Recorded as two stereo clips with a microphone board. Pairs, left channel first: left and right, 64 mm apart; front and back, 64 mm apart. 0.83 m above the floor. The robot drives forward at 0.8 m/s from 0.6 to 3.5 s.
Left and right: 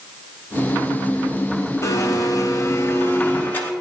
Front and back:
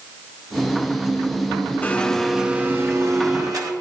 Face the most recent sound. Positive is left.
turn(degrees=150)